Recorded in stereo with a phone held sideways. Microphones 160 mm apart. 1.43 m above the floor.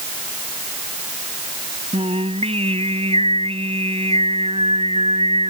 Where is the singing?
40° right (ahead or behind).